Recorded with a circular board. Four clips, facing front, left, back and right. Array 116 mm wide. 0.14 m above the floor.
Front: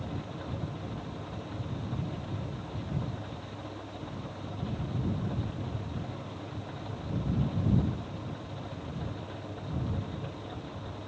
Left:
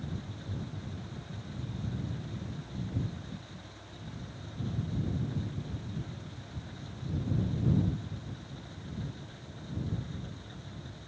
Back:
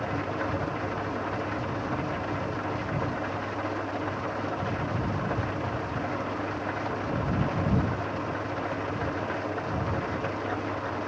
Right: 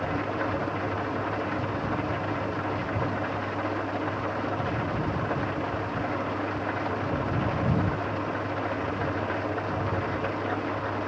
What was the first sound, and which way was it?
An engine running, 120° right.